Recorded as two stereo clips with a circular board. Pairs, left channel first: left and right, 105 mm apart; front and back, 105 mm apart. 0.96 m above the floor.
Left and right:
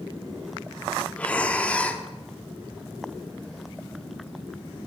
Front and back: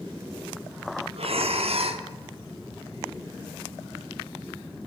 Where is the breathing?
170° left, 0.9 m.